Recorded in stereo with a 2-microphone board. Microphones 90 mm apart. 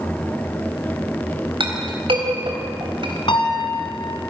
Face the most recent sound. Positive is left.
turn(degrees=65)  # may be behind; listen again after turning